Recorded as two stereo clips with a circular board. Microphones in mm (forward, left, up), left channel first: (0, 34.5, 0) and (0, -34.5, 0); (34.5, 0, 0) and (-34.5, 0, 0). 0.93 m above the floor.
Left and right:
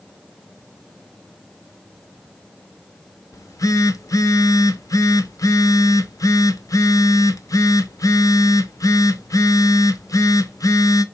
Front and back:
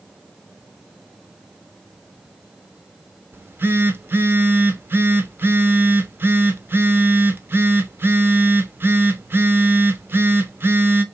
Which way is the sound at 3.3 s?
120° left.